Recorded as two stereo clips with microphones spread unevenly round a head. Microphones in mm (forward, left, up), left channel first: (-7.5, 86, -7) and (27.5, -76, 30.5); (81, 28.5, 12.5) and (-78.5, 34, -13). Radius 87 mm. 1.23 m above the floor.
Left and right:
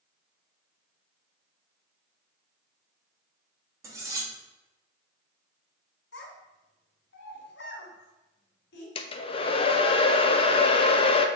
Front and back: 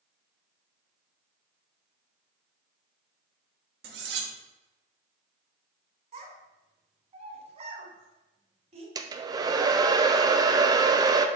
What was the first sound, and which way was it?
Cutlery clinking, 145° right.